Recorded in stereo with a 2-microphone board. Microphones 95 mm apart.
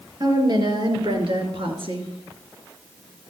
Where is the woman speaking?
50° right (ahead or behind), 3 m; by 2.1 s 65° right (ahead or behind), 3 m.